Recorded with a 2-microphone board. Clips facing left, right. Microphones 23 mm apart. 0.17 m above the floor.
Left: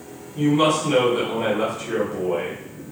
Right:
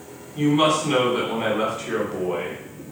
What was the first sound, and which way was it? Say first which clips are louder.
A woman speaking: even; 25° right (ahead or behind).